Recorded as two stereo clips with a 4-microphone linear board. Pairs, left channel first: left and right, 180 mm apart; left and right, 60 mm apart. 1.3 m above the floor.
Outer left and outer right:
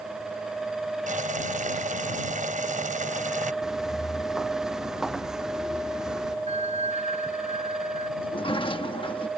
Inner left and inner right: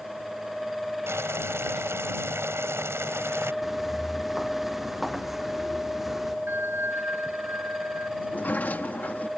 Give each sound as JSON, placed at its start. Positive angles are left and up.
{"t": 1.1, "sound": "boiling", "side_deg": -45}
{"t": 3.6, "sound": "footsteps", "side_deg": -5}
{"t": 6.5, "sound": "a bell", "side_deg": -40}
{"t": 8.2, "sound": "a sliding door", "side_deg": 30}